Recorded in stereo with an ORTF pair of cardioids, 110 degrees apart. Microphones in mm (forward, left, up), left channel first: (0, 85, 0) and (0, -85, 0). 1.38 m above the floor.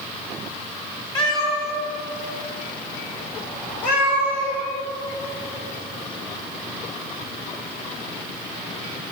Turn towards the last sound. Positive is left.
turn(degrees=70)